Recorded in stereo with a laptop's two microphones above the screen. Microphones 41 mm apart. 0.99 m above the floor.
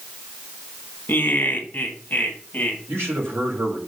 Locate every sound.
1.1 s laughter: 55° left (ahead or behind), 1.5 m; by 2.8 s 45° left (ahead or behind), 2.5 m
2.9 s a man speaking: 75° right (ahead or behind), 3.5 m